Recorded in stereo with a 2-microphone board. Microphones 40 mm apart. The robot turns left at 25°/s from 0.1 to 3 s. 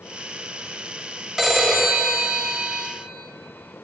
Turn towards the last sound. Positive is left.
turn(degrees=-60)